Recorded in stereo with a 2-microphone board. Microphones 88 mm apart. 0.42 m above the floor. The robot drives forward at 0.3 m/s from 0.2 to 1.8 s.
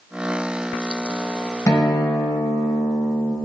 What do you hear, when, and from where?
1.7 s a guitar: 45° left (ahead or behind), 1.3 m